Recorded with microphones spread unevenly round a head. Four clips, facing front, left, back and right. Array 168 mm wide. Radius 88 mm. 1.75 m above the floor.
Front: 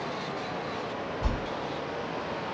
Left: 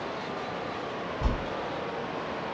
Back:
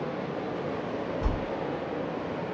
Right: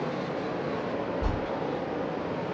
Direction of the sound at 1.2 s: 80° left.